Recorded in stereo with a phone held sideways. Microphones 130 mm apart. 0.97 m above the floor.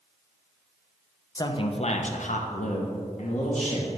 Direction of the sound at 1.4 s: 30° left (ahead or behind).